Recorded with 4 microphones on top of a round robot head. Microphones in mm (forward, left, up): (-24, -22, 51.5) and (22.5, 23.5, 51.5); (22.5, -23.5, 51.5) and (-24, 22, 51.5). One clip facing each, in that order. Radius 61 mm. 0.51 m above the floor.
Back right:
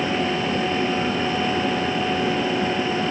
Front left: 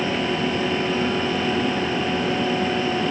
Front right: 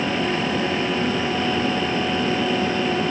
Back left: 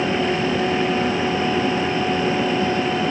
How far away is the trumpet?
No trumpet in this recording.